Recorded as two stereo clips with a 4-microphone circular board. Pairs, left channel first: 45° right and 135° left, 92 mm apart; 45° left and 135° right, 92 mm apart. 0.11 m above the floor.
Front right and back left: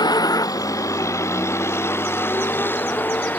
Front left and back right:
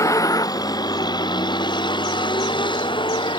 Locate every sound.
0.0 s a vehicle: 5° right; by 3.4 s 25° left